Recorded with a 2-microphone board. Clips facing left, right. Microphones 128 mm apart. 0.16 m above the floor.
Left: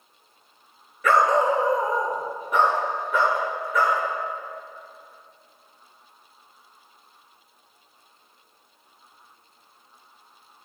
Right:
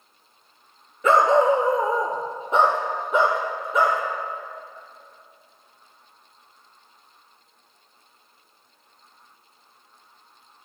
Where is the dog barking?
25° right (ahead or behind), 0.9 m.